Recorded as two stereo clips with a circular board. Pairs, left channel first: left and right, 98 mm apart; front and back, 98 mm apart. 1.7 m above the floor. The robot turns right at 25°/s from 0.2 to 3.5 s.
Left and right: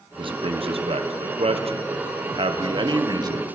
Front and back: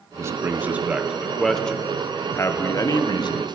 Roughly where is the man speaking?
Behind right.